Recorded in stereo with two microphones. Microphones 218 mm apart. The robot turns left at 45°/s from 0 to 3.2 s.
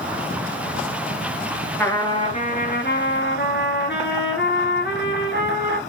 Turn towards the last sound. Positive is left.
turn(degrees=105)